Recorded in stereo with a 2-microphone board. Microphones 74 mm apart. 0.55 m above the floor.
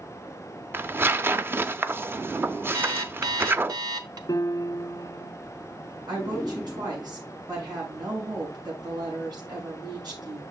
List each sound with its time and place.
0.7 s tearing paper: 30° right (ahead or behind), 0.5 m
2.7 s an alarm clock: 65° right (ahead or behind), 0.8 m
4.3 s a piano: 60° left (ahead or behind), 0.9 m
6.1 s a woman speaking: 70° right (ahead or behind), 6 m